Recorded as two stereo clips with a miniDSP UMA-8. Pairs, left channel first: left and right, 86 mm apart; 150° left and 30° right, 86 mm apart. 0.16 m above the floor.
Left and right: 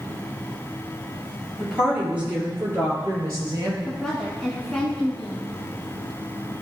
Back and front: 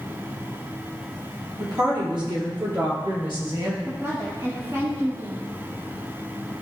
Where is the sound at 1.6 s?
10° right, 3.5 m; by 3.8 s 50° right, 3.5 m.